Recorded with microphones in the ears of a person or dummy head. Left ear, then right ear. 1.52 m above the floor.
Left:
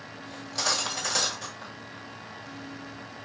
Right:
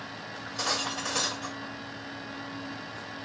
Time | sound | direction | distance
0.3 | cutlery clinking | 65° left (ahead or behind) | 1.3 m